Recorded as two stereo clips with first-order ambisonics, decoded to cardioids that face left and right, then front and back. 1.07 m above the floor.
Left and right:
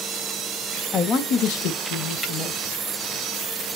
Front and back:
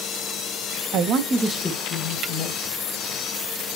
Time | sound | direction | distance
0.9 | a man speaking | 155° left | 0.7 m